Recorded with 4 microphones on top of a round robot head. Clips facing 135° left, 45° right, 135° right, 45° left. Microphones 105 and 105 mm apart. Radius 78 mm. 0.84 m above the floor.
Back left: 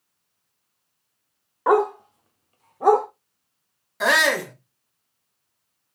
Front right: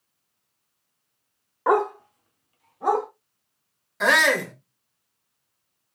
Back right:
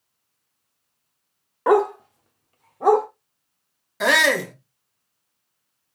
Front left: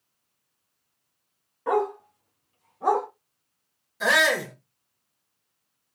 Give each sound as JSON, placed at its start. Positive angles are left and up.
{"t": 1.7, "sound": "a dog barking", "azimuth_deg": -135, "distance_m": 0.7}
{"t": 4.0, "sound": "a shout", "azimuth_deg": -140, "distance_m": 2.0}